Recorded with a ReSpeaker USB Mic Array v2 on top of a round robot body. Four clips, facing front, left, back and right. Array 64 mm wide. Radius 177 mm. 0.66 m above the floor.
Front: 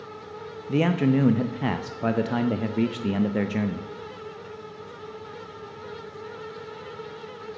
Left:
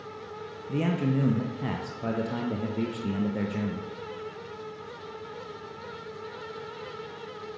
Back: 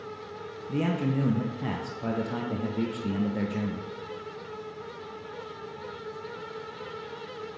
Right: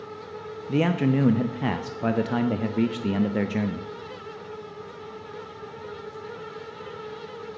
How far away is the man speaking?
About 0.6 m.